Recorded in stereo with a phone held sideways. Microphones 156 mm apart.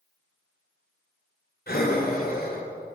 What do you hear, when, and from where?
1.7 s breathing: 75° left (ahead or behind), 2.5 m